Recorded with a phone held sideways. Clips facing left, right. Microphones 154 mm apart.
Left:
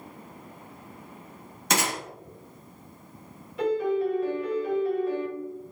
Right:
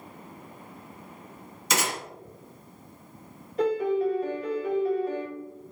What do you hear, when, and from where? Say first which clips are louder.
1.7 s a gunshot: left 2 dB; 60° left (ahead or behind), 1.4 m
3.6 s a piano: right 1 dB; 45° right (ahead or behind), 1.1 m